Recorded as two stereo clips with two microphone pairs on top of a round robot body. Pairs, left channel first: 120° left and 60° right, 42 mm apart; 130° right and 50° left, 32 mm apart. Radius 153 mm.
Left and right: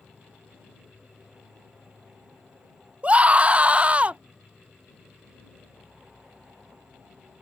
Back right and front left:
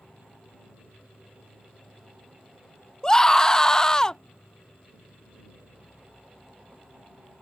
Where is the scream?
75° right.